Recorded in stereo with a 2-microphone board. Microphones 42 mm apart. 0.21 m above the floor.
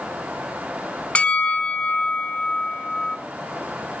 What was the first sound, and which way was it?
A bell, 30° left (ahead or behind).